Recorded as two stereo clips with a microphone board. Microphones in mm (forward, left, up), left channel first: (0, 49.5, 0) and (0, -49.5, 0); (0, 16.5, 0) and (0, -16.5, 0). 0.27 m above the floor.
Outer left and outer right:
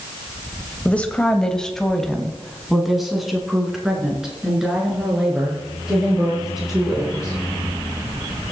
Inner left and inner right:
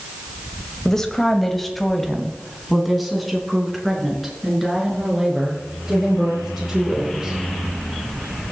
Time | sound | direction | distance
0.8 | a woman speaking | 15° left (ahead or behind) | 1.1 m